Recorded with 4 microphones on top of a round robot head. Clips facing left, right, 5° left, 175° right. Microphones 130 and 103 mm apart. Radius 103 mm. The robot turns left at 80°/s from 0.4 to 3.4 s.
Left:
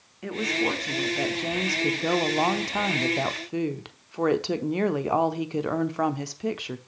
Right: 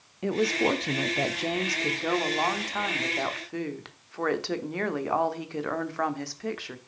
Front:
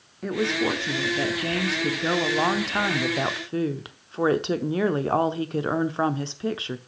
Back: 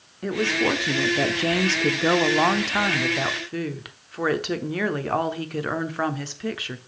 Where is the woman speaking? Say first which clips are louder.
Right 3 dB, back 1 dB; 80° right, 0.8 m; by 6.8 s 40° left, 0.8 m.